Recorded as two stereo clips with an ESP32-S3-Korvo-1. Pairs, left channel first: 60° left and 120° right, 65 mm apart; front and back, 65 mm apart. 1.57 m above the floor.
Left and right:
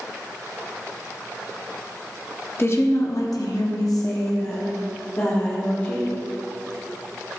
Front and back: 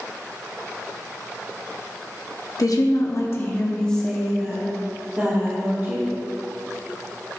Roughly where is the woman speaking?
Ahead.